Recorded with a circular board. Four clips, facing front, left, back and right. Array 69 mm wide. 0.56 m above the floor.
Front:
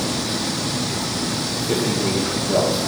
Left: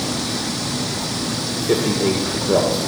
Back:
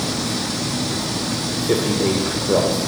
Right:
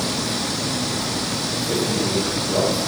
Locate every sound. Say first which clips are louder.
1.6 s a man speaking: left 5 dB, back 3 dB; 130° left, 2 m